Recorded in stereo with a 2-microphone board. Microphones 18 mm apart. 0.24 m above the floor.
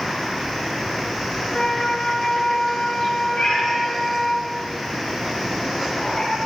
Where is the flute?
60° left (ahead or behind), 1.1 m.